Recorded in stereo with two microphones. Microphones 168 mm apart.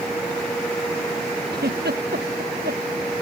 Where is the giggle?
80° right.